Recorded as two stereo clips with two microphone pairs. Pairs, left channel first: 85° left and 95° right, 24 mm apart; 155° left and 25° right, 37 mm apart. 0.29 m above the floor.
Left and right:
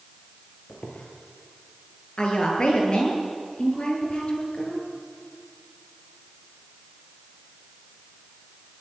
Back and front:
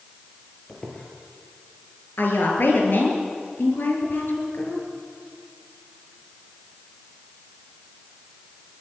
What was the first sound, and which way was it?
A squeak, 95° left.